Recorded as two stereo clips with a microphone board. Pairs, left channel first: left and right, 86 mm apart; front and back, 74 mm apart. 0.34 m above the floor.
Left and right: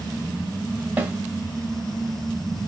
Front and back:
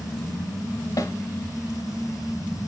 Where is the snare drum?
25° right, 0.8 m.